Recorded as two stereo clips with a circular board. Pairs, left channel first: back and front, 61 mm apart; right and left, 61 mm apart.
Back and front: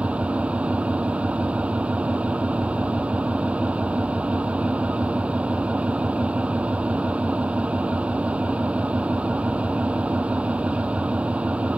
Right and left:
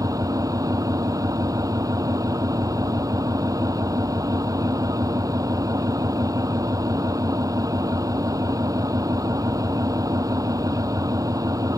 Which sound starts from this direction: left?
An engine running, at 0.0 s.